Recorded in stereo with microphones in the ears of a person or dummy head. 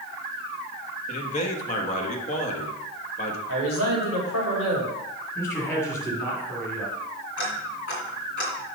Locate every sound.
1.1 s a man speaking: 40° left (ahead or behind), 1.4 m
3.5 s a man speaking: 75° left (ahead or behind), 3 m
5.3 s a man speaking: 15° left (ahead or behind), 2.5 m
7.4 s ticking: 65° left (ahead or behind), 2.5 m